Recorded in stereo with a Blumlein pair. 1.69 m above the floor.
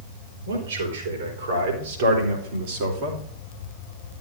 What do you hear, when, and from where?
0.5 s a man speaking: 65° right, 4 m; by 3.2 s 45° right, 2.5 m